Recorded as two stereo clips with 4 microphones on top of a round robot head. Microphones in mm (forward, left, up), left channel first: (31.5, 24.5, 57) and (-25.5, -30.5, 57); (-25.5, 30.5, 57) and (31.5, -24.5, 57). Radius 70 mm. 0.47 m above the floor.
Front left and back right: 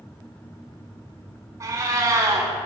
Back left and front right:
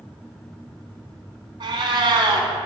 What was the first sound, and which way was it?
A cat meowing, 80° right.